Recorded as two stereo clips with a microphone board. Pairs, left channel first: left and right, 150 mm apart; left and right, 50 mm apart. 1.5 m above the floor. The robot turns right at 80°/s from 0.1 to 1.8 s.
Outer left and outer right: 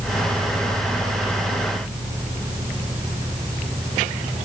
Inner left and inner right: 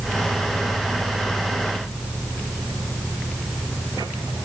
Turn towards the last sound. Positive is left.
No sound to turn to.